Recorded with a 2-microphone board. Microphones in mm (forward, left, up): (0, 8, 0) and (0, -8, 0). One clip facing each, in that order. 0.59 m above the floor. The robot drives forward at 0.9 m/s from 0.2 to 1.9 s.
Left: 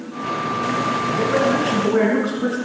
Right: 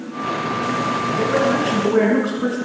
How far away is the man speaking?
About 6.5 m.